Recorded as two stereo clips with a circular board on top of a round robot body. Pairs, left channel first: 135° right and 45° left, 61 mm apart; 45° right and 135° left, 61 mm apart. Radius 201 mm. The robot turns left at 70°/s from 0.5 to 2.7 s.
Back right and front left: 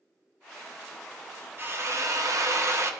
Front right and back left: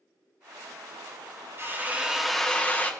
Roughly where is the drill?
Left.